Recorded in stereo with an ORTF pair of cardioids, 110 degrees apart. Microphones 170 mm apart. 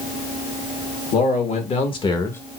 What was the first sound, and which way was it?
A man speaking, 50° left.